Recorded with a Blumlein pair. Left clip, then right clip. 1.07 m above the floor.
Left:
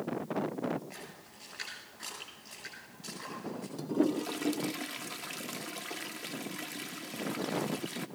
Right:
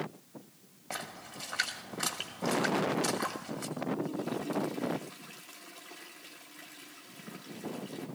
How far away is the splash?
About 2 m.